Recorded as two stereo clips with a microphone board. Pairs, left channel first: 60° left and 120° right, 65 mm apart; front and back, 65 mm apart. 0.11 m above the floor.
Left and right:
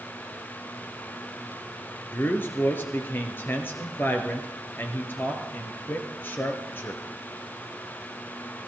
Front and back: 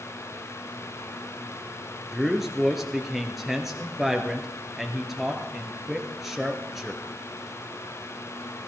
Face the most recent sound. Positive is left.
turn(degrees=95)